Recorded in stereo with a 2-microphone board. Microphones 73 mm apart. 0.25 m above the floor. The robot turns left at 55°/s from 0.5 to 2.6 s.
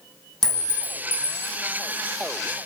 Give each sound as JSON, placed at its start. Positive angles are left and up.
{"t": 0.4, "sound": "a clink", "azimuth_deg": 175, "distance_m": 0.8}